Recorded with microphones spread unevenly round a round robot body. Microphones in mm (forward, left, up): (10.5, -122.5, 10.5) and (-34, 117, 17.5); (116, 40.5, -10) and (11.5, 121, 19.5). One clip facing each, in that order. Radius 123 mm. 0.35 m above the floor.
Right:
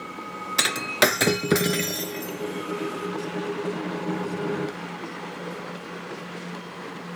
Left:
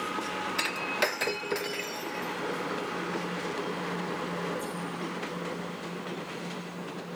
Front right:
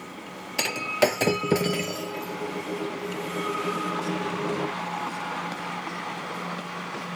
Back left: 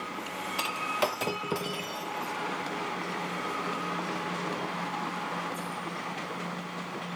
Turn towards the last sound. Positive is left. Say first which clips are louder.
# right 10 dB, front right 8 dB
turn(degrees=-100)